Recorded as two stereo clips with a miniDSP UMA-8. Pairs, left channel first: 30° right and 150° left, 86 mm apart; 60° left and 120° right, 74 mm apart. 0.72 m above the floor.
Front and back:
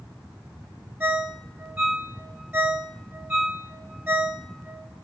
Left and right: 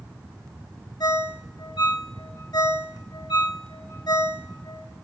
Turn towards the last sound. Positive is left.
turn(degrees=85)